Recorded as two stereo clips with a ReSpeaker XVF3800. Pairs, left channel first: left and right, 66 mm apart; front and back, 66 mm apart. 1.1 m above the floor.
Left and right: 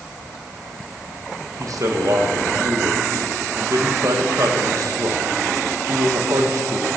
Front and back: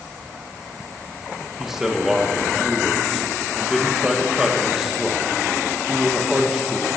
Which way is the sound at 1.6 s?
95° right.